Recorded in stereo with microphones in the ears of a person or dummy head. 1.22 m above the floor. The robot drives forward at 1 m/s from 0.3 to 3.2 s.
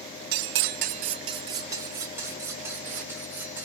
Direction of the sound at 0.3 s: 55° right (ahead or behind).